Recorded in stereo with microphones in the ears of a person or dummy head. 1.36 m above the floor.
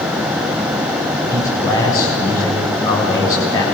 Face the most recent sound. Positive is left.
turn(degrees=15)  # may be behind; listen again after turning